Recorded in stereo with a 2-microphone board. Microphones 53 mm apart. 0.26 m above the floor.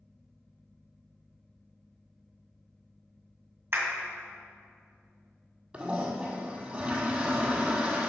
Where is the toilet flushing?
20° right (ahead or behind), 1.3 m.